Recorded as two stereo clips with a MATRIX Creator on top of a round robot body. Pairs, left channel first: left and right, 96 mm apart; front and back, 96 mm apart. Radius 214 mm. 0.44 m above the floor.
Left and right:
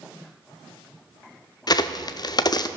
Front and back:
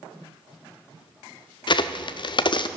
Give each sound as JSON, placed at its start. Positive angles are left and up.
{"t": 1.7, "sound": "a crack", "azimuth_deg": 40, "distance_m": 0.5}